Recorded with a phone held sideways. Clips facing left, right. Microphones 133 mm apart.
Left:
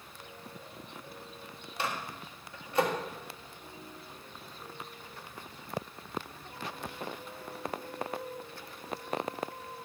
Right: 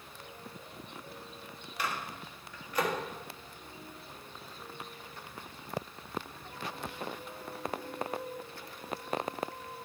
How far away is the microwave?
About 1.6 m.